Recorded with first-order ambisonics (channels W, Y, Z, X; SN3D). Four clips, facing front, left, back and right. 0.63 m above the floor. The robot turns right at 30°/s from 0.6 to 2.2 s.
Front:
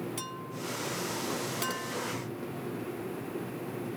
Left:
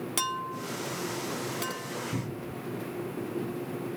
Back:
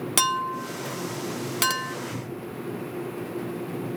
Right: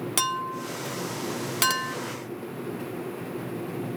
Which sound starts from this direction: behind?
A clink, at 0.2 s.